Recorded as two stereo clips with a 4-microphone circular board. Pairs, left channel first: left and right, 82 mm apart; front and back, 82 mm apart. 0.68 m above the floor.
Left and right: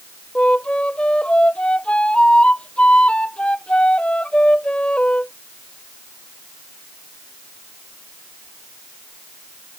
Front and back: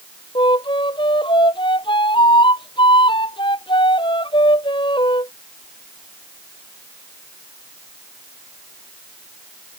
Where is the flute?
10° left.